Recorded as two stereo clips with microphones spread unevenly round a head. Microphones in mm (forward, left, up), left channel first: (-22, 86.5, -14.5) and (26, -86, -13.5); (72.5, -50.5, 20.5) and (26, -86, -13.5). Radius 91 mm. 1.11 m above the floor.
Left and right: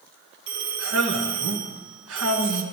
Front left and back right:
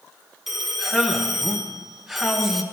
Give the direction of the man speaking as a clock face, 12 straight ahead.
2 o'clock.